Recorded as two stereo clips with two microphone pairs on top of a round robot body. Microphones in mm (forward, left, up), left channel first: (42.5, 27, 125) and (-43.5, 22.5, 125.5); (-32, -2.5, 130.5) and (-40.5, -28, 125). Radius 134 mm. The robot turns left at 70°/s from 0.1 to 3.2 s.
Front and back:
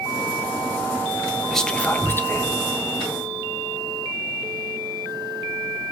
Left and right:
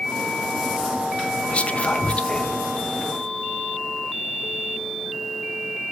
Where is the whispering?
90° left, 0.9 m; by 2.6 s 10° left, 0.9 m.